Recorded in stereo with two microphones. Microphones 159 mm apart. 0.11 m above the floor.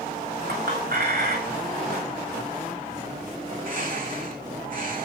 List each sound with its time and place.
0.5 s a clink: 80° right, 7.5 m
3.5 s a bird: 65° right (ahead or behind), 7.5 m